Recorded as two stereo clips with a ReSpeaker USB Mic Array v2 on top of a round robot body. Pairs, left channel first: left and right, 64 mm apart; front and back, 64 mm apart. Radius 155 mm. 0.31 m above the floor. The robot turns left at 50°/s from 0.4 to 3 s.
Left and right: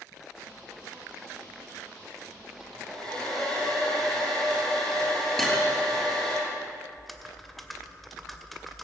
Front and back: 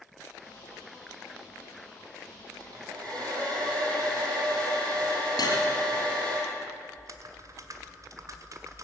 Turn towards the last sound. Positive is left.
turn(degrees=180)